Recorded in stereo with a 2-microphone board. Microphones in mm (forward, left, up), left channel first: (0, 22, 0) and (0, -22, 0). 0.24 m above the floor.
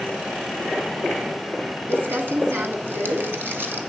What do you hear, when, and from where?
1.9 s crumpling: 60° right (ahead or behind), 1.3 m